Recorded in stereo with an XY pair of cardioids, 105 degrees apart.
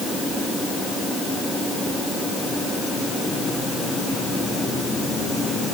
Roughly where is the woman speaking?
No woman speaking in this recording.